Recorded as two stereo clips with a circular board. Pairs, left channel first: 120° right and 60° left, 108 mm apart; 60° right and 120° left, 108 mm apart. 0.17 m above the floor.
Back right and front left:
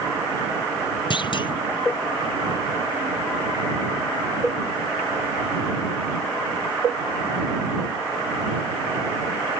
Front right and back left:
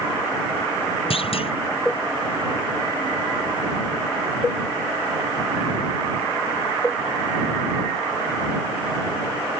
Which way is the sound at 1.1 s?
80° right.